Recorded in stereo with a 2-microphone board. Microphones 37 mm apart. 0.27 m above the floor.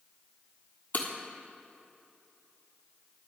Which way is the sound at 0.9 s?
55° left (ahead or behind).